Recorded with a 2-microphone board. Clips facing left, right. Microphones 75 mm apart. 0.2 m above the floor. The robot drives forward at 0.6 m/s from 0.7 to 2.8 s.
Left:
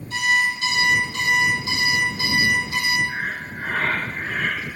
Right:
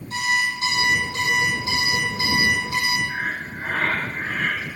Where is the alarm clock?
40° right (ahead or behind), 2.5 m; by 3.0 s 30° right (ahead or behind), 3.5 m.